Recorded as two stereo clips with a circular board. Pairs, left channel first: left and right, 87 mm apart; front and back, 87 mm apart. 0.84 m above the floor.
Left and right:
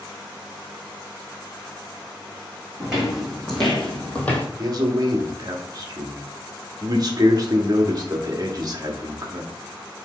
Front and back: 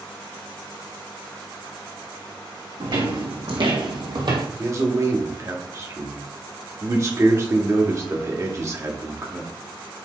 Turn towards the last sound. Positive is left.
turn(degrees=-130)